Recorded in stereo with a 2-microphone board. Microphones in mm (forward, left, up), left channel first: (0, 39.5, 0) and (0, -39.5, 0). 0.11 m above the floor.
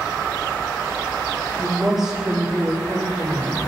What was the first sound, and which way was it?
A woman speaking, centre (ahead or behind).